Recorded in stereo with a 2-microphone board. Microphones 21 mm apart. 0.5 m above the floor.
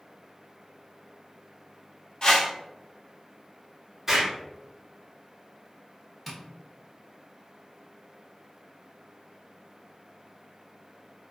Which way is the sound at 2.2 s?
35° left (ahead or behind).